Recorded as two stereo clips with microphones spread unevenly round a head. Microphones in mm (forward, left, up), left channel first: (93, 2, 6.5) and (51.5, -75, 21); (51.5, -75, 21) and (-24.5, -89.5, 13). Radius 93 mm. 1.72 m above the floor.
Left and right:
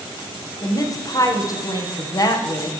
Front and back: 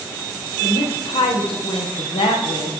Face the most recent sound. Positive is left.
turn(degrees=15)